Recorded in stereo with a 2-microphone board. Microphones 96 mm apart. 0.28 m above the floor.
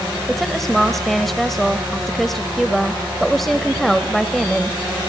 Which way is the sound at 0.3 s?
Centre (ahead or behind).